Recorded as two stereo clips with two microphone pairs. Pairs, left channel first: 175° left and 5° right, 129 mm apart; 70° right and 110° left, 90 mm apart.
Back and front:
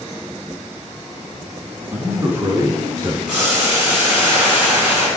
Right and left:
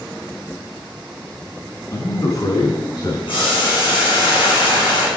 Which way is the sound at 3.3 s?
90° right.